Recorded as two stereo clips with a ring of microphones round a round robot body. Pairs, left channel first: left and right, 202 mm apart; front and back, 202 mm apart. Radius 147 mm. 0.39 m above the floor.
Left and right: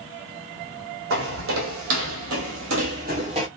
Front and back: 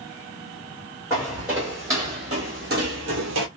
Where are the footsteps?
90° right, 1.2 m; by 3.5 s 165° right, 0.6 m.